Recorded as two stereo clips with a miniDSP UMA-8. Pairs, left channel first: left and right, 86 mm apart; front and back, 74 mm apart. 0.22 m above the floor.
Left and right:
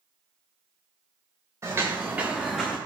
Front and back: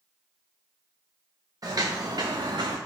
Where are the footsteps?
145° right, 1.3 m; by 2.8 s 165° left, 0.8 m.